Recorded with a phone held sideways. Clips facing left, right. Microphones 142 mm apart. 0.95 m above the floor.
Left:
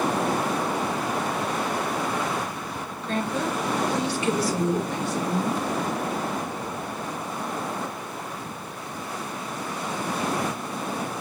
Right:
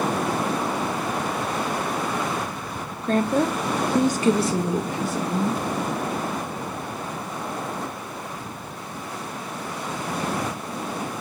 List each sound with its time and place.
3.0 s a woman speaking: 45° right (ahead or behind), 1.1 m; by 5.6 s 5° left (ahead or behind), 1.6 m